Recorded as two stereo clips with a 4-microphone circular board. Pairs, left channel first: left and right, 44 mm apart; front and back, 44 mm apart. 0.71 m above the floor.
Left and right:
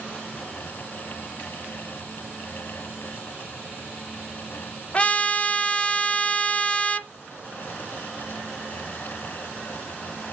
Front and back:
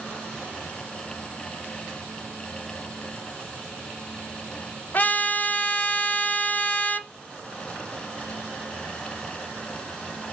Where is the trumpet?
35° left, 0.8 m.